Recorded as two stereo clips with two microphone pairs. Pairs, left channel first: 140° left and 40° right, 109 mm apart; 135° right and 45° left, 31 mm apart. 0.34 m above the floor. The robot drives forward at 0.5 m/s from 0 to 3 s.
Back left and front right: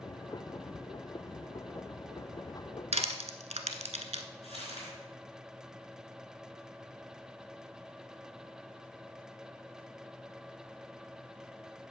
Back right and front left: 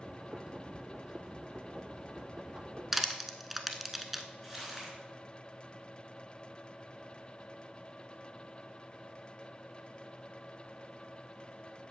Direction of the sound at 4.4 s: 135° left.